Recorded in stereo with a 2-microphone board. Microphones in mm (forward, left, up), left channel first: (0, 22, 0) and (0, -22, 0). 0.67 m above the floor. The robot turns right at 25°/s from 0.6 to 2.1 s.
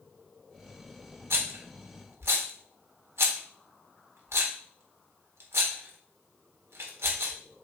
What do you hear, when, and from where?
1.3 s a rattle: 65° right (ahead or behind), 1.5 m; by 7.3 s 70° right (ahead or behind), 1.5 m